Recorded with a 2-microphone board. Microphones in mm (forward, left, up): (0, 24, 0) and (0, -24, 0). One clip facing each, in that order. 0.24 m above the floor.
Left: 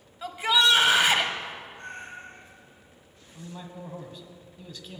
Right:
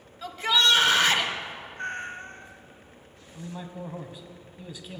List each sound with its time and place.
0.2 s a shout: 15° left (ahead or behind), 1.4 m
1.8 s a cat meowing: 55° right (ahead or behind), 1.4 m
3.4 s a man speaking: 10° right (ahead or behind), 1.4 m